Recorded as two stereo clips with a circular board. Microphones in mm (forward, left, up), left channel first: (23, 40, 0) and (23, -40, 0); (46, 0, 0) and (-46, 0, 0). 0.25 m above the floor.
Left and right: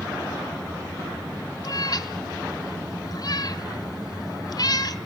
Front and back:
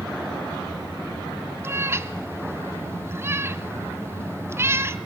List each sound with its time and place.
1.6 s a cat meowing: 120° left, 0.8 m